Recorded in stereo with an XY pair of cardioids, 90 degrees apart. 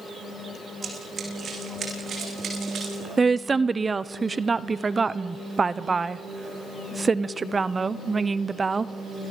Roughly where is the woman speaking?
Ahead right.